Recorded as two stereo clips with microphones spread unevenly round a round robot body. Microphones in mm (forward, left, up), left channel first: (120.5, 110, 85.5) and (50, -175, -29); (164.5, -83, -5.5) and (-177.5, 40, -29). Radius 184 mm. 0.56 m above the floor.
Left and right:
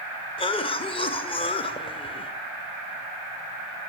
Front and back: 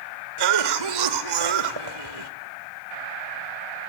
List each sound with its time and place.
0.4 s a cough: 160° left, 1.8 m